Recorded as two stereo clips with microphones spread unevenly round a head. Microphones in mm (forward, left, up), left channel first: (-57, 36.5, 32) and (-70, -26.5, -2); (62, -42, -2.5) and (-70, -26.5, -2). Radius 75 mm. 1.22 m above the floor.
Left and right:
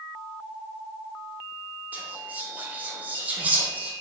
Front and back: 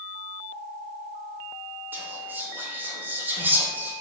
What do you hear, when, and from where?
1.9 s whispering: 115° right, 0.6 m